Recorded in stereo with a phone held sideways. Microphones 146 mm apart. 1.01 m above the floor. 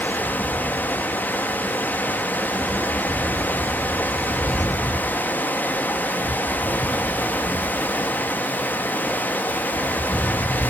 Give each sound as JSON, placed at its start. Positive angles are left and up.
{"t": 0.0, "sound": "running water", "side_deg": 10, "distance_m": 0.9}